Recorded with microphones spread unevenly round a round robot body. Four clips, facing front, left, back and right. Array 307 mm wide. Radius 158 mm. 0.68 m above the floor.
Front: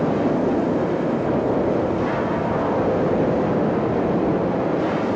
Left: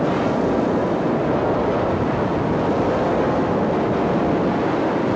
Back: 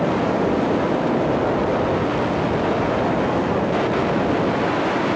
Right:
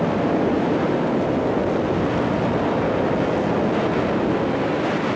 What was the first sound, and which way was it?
Only background noise.